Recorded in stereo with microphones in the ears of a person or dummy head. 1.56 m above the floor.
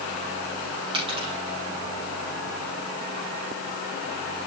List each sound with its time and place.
0.9 s a dropped coin: 25° right (ahead or behind), 4 m